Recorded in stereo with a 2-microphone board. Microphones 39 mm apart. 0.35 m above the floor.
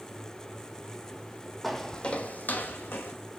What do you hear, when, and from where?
1.6 s footsteps: 5° left (ahead or behind), 0.8 m; by 3.1 s 75° left (ahead or behind), 1.3 m